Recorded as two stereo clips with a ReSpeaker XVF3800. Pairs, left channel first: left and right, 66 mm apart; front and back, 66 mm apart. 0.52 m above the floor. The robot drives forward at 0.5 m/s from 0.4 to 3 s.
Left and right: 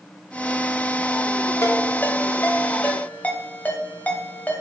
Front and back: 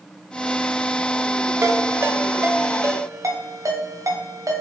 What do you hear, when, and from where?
1.6 s a ringtone: 135° left, 1.0 m; by 4.6 s 155° left, 1.6 m